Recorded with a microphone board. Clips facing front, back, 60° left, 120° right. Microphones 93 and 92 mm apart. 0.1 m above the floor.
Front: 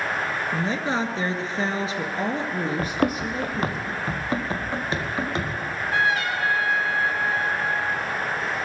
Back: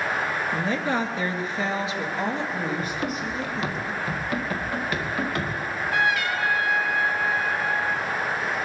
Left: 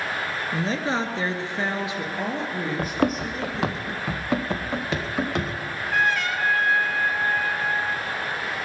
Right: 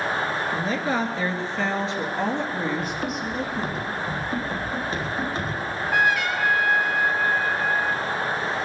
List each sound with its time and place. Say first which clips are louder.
0.5 s a woman speaking: even, left 2 dB; 55° left, 1.7 m; by 3.8 s 35° right, 3 m
2.8 s running footsteps: front 4 dB, left 4 dB; 25° left, 1.1 m; by 5.5 s 65° left, 3 m
5.6 s a trumpet: even, right 3 dB; 40° right, 2 m